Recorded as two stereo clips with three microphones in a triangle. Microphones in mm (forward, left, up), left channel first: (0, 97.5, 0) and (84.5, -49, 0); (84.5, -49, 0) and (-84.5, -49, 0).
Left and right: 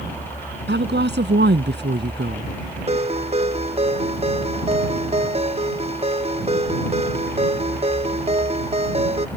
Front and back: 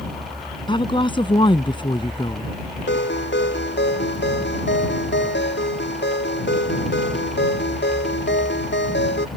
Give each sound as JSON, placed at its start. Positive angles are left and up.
{"t": 0.7, "sound": "a woman speaking", "azimuth_deg": -60}
{"t": 2.9, "sound": "a ringtone", "azimuth_deg": -5}